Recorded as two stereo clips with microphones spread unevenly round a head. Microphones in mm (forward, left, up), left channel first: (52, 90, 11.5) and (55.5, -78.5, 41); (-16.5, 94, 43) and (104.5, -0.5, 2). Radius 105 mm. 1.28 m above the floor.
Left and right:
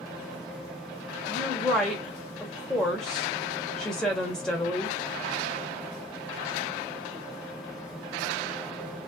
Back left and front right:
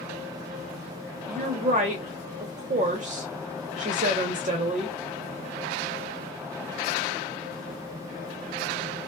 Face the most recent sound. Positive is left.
turn(degrees=5)